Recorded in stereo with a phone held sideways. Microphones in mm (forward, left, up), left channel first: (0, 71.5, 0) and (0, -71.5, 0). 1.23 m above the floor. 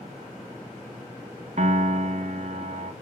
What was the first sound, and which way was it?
A piano, 55° right (ahead or behind).